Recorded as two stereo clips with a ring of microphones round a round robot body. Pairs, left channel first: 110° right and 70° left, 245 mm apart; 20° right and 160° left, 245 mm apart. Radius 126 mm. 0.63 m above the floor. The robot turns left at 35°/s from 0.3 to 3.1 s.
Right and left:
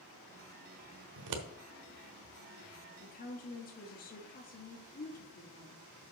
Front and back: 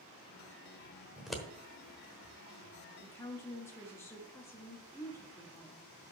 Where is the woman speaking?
95° right, 1.3 m.